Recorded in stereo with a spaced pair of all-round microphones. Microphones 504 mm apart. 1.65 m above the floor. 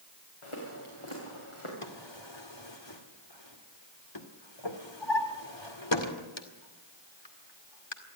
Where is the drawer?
60° left (ahead or behind), 2 m.